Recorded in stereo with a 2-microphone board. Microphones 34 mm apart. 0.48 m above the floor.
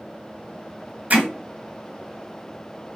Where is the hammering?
45° right (ahead or behind), 0.9 m.